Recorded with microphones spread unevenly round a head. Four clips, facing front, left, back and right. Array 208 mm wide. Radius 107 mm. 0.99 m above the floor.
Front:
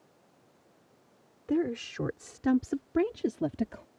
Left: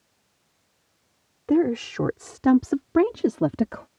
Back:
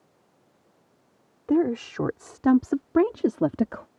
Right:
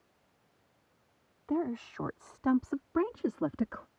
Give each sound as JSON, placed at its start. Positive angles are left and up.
{"t": 1.5, "sound": "a woman speaking", "azimuth_deg": 125}